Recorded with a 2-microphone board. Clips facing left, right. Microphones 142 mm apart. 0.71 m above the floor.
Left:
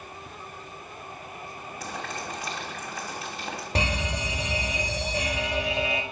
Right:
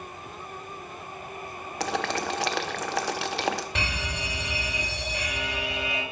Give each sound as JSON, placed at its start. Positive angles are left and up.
{"t": 1.8, "sound": "boiling", "side_deg": -80, "distance_m": 0.8}
{"t": 3.8, "sound": "a fire alarm", "side_deg": 40, "distance_m": 2.5}